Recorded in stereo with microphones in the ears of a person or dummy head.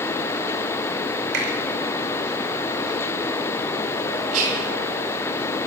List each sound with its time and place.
1.3 s a finger snap: 70° right (ahead or behind), 4.5 m
4.3 s whispering: 50° right (ahead or behind), 2.5 m